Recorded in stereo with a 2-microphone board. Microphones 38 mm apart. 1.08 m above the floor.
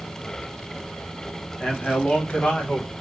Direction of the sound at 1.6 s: 20° left (ahead or behind).